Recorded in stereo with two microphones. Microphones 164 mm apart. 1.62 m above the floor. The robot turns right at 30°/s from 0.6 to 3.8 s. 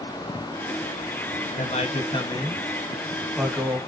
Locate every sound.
1.6 s a man speaking: 130° left, 1.0 m; by 3.8 s 165° right, 1.0 m